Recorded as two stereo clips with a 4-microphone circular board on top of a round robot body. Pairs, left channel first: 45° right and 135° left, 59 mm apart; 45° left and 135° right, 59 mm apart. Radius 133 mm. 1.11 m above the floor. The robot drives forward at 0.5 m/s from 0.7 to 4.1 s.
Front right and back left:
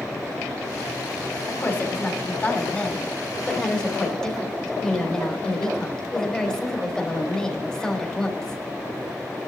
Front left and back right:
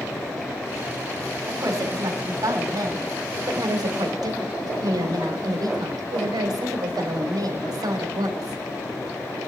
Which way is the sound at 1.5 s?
105° right.